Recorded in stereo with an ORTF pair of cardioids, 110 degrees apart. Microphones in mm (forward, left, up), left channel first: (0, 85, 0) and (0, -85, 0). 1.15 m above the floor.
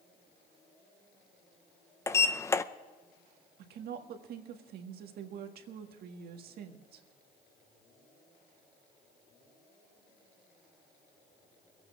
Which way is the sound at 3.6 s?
70° right.